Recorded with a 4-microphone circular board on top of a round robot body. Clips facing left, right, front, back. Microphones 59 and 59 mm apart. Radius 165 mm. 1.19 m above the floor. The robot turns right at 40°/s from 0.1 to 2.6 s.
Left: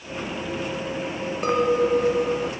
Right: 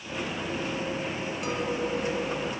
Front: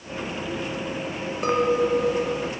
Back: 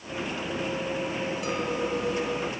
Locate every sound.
1.4 s a clink: 45° left; by 2.5 s 90° left